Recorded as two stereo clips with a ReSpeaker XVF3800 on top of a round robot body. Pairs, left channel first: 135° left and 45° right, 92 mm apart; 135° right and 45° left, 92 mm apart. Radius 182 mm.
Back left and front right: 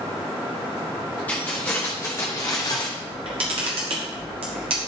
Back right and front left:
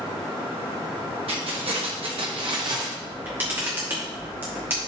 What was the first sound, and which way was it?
Keys jangling, 60° left.